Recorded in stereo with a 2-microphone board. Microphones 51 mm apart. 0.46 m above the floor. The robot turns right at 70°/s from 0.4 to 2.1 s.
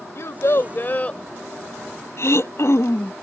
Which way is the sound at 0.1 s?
100° left.